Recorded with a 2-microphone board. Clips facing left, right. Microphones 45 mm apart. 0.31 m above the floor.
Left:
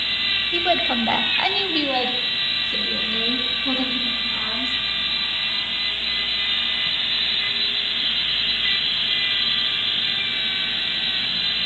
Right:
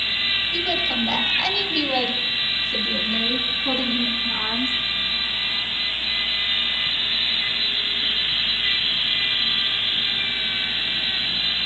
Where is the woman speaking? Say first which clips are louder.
Left 3 dB; 40° left (ahead or behind), 1.4 m; by 4.7 s 10° right (ahead or behind), 4 m.